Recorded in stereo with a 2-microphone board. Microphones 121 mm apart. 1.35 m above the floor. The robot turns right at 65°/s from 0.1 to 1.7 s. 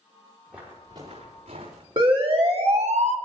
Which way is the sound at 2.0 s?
45° right (ahead or behind).